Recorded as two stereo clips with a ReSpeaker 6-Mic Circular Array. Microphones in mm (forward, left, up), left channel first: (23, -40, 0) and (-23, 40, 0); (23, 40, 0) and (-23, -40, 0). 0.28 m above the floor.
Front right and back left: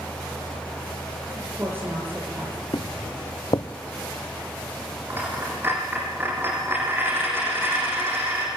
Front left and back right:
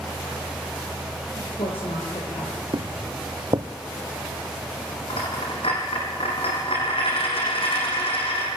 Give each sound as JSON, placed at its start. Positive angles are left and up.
{"t": 1.4, "sound": "a woman speaking", "azimuth_deg": 55, "distance_m": 7.5}
{"t": 2.7, "sound": "footsteps", "azimuth_deg": -95, "distance_m": 1.2}
{"t": 5.1, "sound": "a dropped coin", "azimuth_deg": 55, "distance_m": 7.5}